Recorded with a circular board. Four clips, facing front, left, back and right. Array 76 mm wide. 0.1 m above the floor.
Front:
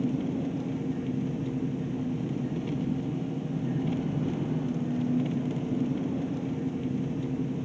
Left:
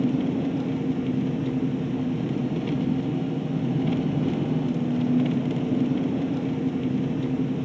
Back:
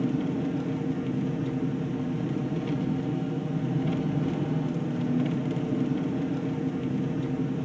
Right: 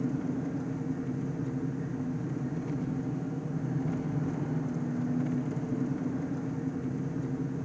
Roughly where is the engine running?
Left.